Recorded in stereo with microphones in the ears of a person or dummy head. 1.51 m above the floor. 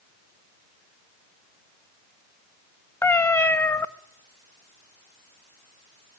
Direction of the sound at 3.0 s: 15° left (ahead or behind).